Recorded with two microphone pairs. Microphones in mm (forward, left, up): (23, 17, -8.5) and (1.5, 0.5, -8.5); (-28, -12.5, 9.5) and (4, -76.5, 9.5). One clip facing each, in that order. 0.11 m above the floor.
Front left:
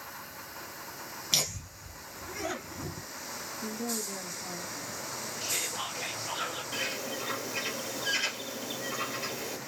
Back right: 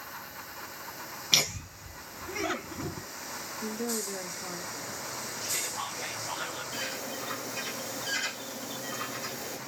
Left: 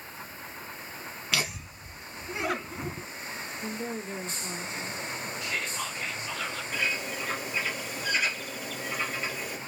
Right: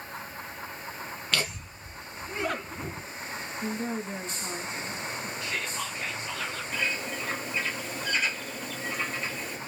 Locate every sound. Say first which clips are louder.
1.3 s laughter: back right 4 dB, even; 170° right, 1.3 m
3.6 s a woman speaking: back right 2 dB, right 3 dB; 105° right, 1.3 m
5.4 s whispering: front left 1 dB, left 1 dB; 25° left, 2 m
6.7 s a bird: front left 2 dB, even; 35° left, 2 m